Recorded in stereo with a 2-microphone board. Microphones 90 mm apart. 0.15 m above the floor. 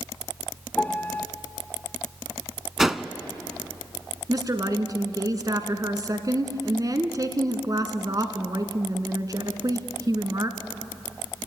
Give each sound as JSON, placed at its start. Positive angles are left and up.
{"t": 0.8, "sound": "a piano", "side_deg": 20, "distance_m": 0.7}
{"t": 2.8, "sound": "a whoosh", "side_deg": -5, "distance_m": 0.7}
{"t": 4.3, "sound": "a woman speaking", "side_deg": -45, "distance_m": 1.6}